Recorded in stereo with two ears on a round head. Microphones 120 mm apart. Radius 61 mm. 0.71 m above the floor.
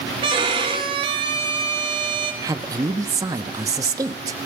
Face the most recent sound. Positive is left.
turn(degrees=-25)  # may be behind; listen again after turning